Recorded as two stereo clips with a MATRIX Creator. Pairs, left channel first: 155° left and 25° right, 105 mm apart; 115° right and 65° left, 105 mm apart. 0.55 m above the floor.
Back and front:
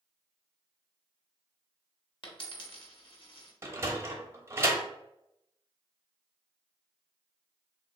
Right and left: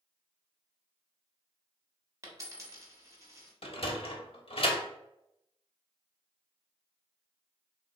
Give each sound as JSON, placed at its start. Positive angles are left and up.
{"t": 2.2, "sound": "a dropped coin", "azimuth_deg": 125, "distance_m": 1.0}
{"t": 3.6, "sound": "a sliding door", "azimuth_deg": -85, "distance_m": 0.7}